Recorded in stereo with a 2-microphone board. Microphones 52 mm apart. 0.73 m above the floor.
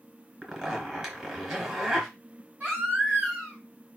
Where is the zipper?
15° right (ahead or behind), 3 m.